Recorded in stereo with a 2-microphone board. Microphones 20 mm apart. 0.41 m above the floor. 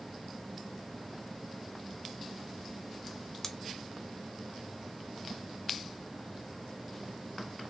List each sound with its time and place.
3.4 s scissors: 20° left (ahead or behind), 0.5 m